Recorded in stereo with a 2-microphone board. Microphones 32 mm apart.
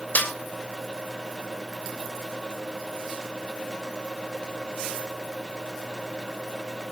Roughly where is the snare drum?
Left.